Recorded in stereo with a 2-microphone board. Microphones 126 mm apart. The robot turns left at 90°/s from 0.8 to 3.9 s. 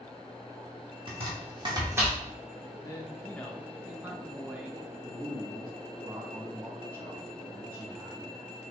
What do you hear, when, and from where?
1.1 s chopping: 45° right (ahead or behind), 1.0 m; by 2.2 s 10° right (ahead or behind), 1.0 m
2.8 s a man speaking: 25° left (ahead or behind), 0.7 m; by 4.9 s 10° right (ahead or behind), 0.7 m
5.0 s a man speaking: 20° right (ahead or behind), 1.5 m